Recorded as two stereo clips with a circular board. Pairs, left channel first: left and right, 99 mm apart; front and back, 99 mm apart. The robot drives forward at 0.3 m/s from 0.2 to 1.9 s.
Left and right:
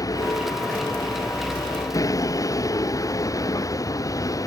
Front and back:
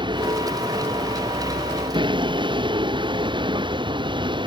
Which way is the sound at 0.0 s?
145° left.